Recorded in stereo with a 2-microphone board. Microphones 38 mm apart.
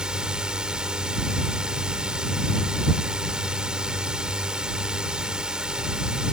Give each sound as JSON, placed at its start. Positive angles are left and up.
{"t": 0.0, "sound": "a drone", "side_deg": -20}